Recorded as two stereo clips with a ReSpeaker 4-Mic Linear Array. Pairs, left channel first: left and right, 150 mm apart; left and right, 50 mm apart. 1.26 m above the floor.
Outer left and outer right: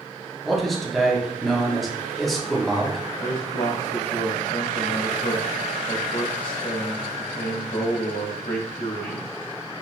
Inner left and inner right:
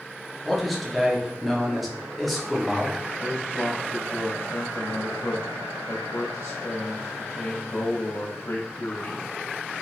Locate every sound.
0.5 s a man speaking: centre (ahead or behind), 0.6 m
3.2 s a man speaking: 80° left, 0.5 m